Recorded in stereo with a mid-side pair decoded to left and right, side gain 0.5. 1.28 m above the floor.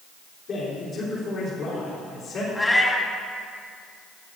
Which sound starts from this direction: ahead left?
A man speaking, at 0.5 s.